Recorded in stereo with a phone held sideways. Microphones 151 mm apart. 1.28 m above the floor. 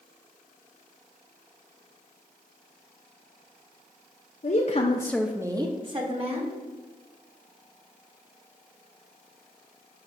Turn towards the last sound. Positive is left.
turn(degrees=-40)  # may be behind; listen again after turning